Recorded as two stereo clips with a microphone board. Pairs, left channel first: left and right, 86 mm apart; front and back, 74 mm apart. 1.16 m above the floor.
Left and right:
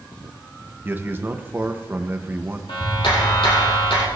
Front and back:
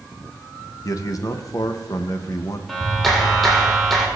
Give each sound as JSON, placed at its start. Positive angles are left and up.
{"t": 0.8, "sound": "a man speaking", "azimuth_deg": -30, "distance_m": 1.0}
{"t": 2.7, "sound": "a clap", "azimuth_deg": 90, "distance_m": 2.5}